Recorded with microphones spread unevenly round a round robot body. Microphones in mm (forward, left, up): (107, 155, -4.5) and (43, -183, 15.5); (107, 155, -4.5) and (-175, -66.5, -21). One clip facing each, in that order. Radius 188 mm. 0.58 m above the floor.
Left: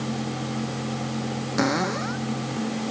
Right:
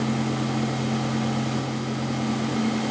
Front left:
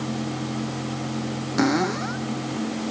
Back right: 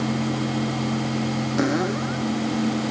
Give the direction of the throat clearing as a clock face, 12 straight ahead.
No throat clearing in this recording.